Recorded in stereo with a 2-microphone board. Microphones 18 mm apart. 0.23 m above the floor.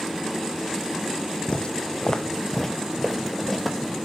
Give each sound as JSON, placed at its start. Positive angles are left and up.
{"t": 1.5, "sound": "footsteps", "side_deg": 60, "distance_m": 0.8}